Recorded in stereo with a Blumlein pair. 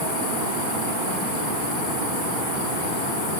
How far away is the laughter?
I don't hear laughter.